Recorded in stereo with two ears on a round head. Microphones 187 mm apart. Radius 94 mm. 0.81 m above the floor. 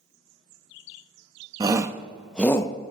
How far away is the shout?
About 1.1 m.